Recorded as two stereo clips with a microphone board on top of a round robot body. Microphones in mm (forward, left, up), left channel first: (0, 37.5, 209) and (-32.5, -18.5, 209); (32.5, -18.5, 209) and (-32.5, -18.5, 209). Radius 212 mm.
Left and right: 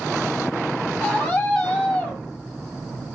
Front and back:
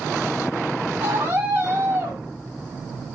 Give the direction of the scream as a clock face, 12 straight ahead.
8 o'clock.